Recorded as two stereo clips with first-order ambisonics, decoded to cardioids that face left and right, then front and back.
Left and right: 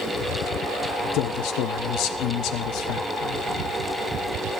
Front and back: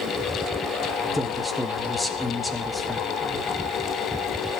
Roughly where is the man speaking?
Left.